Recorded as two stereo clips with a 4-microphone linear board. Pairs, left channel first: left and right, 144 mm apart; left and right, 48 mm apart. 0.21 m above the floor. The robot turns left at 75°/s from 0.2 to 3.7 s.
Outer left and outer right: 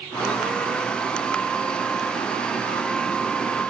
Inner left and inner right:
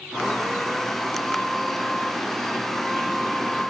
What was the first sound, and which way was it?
Only background noise.